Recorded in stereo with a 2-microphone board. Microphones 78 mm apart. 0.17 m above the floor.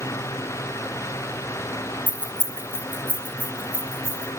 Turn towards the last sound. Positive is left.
turn(degrees=15)  # may be behind; listen again after turning